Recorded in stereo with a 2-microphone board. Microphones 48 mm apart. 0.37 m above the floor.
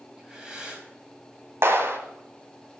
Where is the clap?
65° right (ahead or behind), 1.6 m.